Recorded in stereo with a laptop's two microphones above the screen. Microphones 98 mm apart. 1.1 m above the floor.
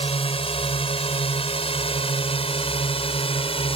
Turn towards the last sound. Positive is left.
turn(degrees=75)  # may be behind; listen again after turning